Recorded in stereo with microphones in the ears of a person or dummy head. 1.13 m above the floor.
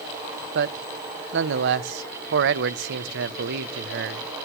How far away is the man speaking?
About 0.7 m.